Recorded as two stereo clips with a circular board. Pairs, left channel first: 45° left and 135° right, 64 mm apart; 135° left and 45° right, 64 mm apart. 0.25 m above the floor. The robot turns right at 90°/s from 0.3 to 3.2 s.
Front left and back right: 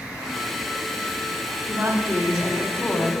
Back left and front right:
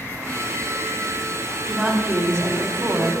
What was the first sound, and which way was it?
A woman speaking, 115° right.